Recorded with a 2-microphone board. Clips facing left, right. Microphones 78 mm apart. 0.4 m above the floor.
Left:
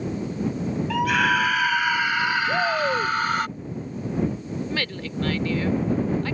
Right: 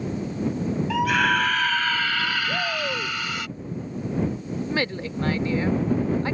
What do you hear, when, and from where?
0.9 s a scream: 5° right (ahead or behind); by 3.5 s 45° left (ahead or behind)
2.5 s a shout: 20° left (ahead or behind)
4.7 s a woman speaking: 25° right (ahead or behind)